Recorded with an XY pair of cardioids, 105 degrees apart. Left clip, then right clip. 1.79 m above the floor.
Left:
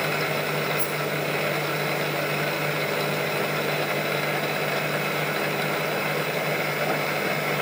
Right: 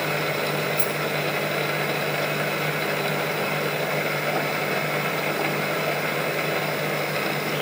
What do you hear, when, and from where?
0.8 s a rattle: 50° right, 4.5 m